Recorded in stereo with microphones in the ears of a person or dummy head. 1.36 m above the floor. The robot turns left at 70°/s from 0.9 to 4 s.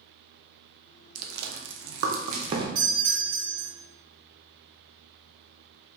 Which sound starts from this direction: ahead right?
A doorbell, at 2.8 s.